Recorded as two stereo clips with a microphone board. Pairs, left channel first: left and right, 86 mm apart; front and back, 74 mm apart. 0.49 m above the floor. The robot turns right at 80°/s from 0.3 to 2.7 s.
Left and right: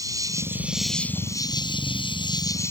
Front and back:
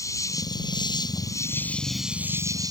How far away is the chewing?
No chewing in this recording.